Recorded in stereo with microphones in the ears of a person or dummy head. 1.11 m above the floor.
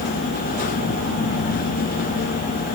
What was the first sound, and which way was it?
Only background noise.